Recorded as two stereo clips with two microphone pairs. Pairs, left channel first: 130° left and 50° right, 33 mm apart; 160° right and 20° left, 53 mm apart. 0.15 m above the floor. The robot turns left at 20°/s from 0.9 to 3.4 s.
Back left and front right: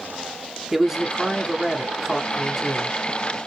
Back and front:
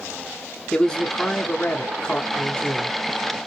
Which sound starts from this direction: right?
A man speaking, at 0.7 s.